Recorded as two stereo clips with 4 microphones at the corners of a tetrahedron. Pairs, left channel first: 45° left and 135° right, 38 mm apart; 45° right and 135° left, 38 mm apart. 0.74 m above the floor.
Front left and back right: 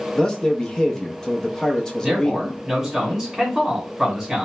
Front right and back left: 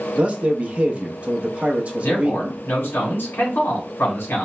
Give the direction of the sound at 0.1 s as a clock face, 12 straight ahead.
8 o'clock.